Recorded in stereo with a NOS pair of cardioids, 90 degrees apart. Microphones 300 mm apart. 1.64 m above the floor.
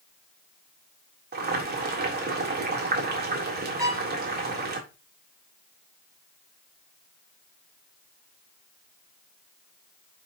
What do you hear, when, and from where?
1.3 s boiling: 30° right, 3.5 m
3.8 s a violin: 10° right, 2.5 m